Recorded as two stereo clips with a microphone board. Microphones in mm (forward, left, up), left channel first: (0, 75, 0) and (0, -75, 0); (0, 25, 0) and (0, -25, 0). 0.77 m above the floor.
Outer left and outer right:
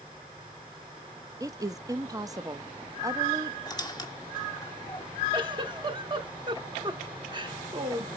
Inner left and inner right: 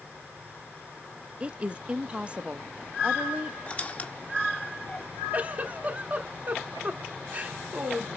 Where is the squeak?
25° left (ahead or behind), 1.4 m.